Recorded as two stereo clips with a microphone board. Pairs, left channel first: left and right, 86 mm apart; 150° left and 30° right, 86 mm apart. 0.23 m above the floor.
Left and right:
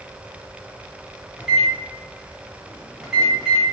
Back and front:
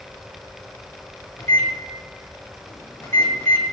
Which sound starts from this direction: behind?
A microwave, at 1.4 s.